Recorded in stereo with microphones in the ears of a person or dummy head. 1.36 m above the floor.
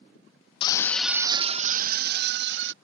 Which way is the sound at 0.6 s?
25° left (ahead or behind).